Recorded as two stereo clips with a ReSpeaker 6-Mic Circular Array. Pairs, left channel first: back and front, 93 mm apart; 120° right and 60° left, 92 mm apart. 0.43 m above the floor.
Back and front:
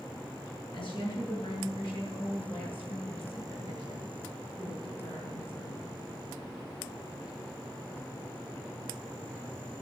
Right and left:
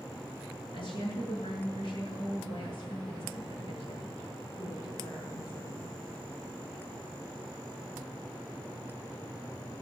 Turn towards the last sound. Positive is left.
turn(degrees=-155)